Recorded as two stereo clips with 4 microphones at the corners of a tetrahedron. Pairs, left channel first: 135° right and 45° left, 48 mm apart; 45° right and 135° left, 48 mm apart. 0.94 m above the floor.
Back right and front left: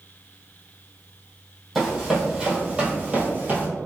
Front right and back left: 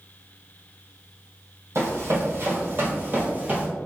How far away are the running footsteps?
About 1.7 m.